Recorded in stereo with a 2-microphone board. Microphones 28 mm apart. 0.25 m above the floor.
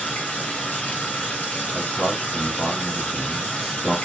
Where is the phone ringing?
No phone ringing in this recording.